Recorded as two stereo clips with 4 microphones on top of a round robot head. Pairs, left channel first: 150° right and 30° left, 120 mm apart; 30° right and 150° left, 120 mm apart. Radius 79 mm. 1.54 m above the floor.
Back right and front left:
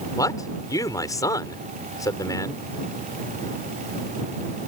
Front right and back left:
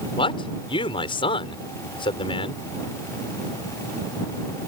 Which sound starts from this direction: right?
A man speaking, at 0.2 s.